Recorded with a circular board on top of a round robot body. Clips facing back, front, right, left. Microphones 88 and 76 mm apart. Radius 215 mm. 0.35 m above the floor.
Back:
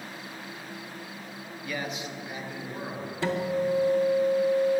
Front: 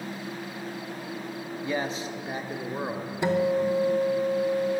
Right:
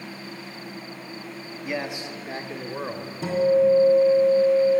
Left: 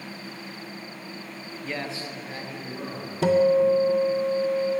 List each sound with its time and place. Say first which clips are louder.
1.6 s a man speaking: front 4 dB, right 3 dB; 20° right, 0.8 m; by 3.1 s 40° right, 1.5 m
3.2 s a guitar: front 4 dB, even; 75° left, 0.7 m